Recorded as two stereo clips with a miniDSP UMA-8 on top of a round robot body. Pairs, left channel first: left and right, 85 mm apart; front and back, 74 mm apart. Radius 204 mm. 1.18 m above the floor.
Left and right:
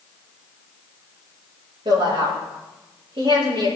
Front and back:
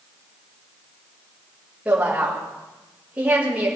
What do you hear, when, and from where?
1.9 s a woman speaking: 110° right, 6 m